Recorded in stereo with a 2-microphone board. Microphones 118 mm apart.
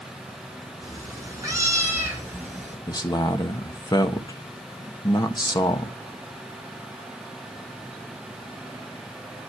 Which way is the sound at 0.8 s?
35° right (ahead or behind).